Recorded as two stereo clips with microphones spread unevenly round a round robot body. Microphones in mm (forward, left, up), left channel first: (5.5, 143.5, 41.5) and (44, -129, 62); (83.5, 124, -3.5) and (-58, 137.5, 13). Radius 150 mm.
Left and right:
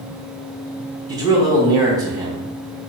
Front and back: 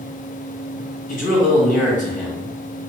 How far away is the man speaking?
About 2.0 m.